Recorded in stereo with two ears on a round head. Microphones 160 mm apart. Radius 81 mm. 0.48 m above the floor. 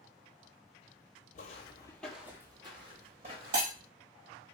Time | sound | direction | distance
1.4 | footsteps | 50° left (ahead or behind) | 0.6 m
3.5 | breaking glass | 65° right (ahead or behind) | 1.4 m